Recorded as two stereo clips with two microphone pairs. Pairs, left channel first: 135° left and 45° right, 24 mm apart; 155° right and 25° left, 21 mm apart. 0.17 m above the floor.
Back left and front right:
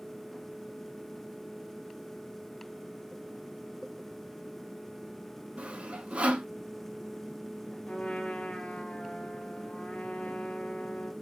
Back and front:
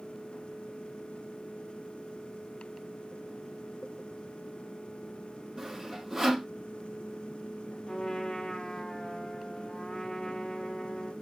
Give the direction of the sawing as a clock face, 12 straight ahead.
1 o'clock.